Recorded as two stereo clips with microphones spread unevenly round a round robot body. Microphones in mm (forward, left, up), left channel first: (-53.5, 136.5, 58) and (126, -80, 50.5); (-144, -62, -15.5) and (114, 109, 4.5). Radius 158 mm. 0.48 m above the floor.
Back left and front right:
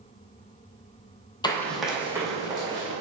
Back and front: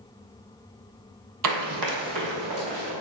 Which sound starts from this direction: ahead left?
Running footsteps, at 1.4 s.